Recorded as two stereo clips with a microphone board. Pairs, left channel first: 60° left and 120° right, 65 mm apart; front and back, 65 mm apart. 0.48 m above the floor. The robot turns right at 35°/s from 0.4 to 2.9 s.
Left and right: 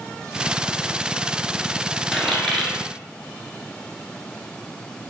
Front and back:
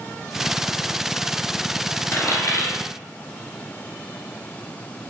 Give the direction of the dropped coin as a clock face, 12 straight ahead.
1 o'clock.